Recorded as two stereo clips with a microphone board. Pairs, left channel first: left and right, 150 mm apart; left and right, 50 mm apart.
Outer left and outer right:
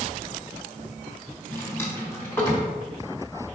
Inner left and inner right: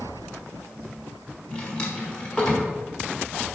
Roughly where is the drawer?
Centre.